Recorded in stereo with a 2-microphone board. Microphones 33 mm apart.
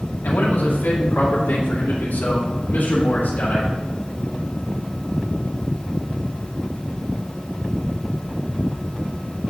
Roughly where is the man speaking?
Left.